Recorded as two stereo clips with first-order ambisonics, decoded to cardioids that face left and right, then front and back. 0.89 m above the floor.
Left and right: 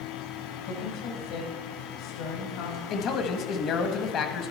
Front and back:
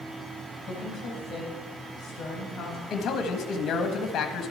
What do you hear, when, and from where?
0.6 s a woman speaking: 75° left, 5 m
2.9 s a man speaking: 50° left, 1.4 m